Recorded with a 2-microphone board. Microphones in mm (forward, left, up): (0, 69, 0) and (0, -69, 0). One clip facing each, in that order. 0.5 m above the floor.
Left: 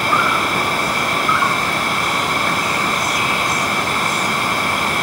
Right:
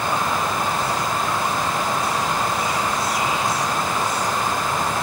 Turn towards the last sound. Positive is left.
turn(degrees=85)